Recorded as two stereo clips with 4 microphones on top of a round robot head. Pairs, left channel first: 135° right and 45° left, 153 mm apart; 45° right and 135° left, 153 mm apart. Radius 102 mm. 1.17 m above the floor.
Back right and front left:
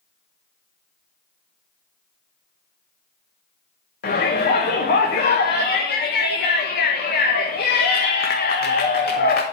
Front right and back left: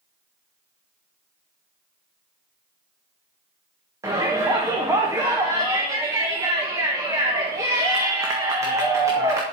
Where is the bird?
I don't hear a bird.